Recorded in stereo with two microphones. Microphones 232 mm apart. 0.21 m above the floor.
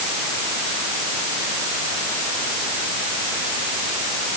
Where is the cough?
No cough in this recording.